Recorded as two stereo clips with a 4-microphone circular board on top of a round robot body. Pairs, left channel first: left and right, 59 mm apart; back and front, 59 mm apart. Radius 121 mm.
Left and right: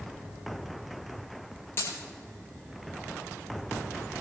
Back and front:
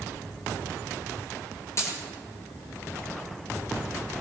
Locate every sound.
1.8 s a dropped coin: 140° left, 9.5 m